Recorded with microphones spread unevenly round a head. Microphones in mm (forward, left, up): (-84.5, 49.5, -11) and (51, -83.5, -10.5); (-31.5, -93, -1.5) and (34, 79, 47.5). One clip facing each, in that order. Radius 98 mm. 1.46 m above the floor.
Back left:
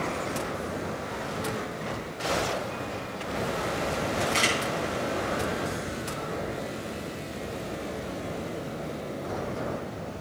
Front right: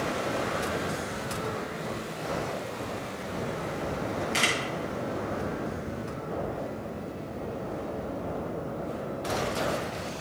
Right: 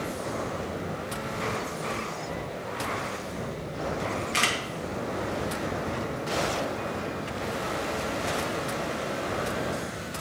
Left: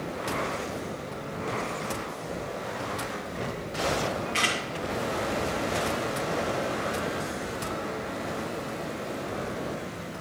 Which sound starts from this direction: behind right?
A camera shutter, at 4.3 s.